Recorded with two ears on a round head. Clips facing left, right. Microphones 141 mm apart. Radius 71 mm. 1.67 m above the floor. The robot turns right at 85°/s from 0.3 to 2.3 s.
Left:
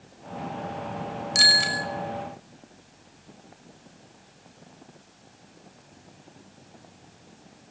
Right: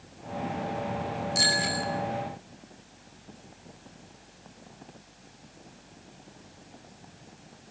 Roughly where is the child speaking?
I don't hear a child speaking.